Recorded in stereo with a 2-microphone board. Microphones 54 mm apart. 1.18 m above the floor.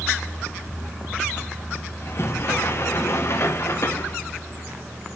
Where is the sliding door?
55° left (ahead or behind), 0.9 m.